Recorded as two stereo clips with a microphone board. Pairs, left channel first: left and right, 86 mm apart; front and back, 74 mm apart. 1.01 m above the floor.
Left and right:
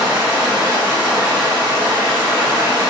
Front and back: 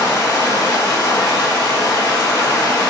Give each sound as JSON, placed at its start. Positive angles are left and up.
{"t": 0.0, "sound": "running water", "azimuth_deg": -25, "distance_m": 1.1}